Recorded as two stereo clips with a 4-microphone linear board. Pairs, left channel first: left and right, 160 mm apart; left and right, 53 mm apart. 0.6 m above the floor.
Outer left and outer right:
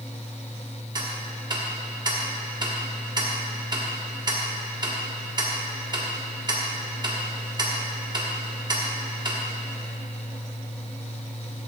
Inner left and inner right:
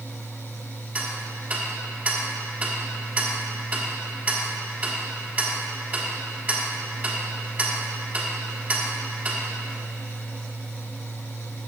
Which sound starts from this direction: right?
Ticking, at 0.9 s.